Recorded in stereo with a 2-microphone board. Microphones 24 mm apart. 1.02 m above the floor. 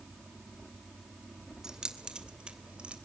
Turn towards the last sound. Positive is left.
turn(degrees=-55)  # may be behind; listen again after turning